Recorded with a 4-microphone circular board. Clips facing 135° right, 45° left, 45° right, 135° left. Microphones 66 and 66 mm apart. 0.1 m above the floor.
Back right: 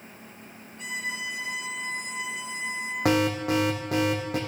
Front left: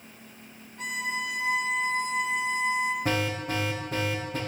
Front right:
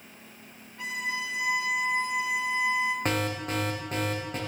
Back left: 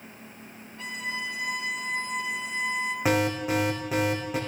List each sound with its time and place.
0.8 s a violin: 20° left, 2 m
3.0 s an alarm: 140° right, 3 m